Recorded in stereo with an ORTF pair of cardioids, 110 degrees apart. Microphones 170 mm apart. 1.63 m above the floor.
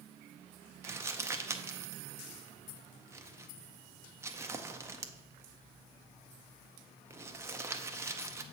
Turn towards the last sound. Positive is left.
turn(degrees=-15)